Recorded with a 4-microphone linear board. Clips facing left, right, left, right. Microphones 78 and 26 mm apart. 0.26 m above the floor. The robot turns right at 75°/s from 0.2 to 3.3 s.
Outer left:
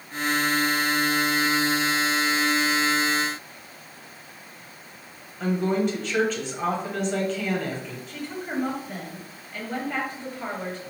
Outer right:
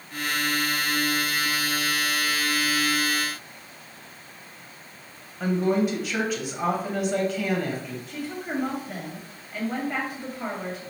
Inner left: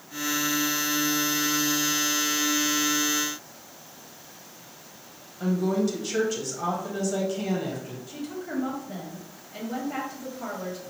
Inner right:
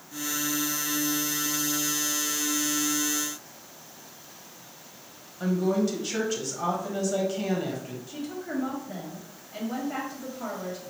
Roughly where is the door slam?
I don't hear a door slam.